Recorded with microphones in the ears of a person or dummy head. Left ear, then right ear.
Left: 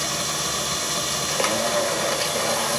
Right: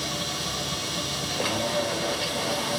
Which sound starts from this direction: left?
A machine running, at 0.0 s.